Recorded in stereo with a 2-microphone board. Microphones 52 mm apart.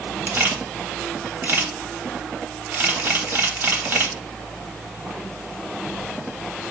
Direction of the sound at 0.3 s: 45° right (ahead or behind).